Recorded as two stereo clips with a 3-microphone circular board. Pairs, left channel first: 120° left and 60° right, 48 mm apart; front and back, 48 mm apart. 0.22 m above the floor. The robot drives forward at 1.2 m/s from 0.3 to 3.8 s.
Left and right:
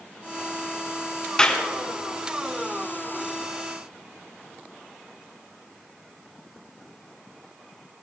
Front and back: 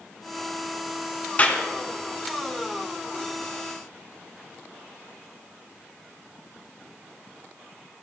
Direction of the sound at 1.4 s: 50° left.